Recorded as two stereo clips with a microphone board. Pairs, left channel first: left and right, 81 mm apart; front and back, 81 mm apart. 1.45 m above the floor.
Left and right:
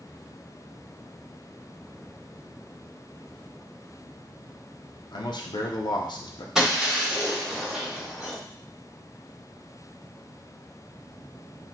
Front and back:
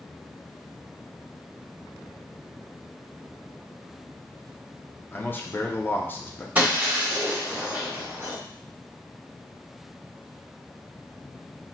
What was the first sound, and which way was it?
A man speaking, 65° left.